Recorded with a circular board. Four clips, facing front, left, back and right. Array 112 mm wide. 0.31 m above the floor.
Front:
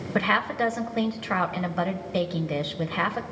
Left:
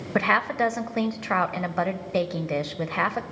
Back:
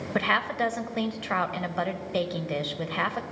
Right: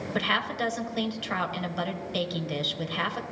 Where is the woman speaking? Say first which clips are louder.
Left 7 dB, front 2 dB; 85° left, 0.9 m.